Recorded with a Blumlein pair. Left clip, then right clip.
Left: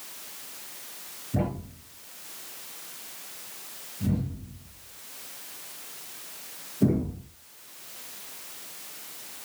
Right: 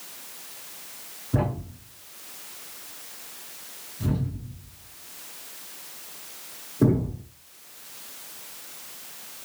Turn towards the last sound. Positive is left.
turn(degrees=-55)